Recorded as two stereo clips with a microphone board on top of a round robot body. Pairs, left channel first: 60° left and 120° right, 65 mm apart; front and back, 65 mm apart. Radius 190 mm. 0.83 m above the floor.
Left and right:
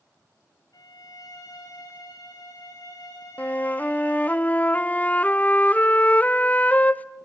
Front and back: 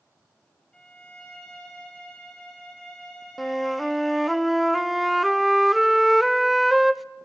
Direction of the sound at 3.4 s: 90° left.